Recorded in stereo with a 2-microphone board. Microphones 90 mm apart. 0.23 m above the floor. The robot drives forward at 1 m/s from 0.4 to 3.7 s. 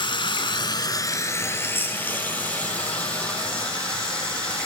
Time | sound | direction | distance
0.0 | running water | 65° left (ahead or behind) | 0.8 m